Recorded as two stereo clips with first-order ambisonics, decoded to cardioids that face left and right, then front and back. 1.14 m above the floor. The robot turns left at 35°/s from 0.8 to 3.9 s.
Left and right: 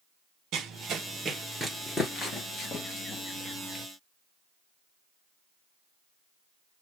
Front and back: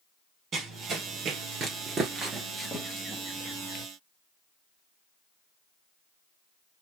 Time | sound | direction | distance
0.5 | running footsteps | 130° right | 1.8 m